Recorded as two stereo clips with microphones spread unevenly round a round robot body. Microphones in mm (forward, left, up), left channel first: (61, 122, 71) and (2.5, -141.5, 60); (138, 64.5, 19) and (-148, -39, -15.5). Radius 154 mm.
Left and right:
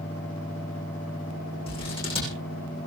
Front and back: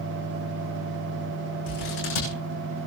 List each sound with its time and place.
1.7 s scissors: 5° left, 10 m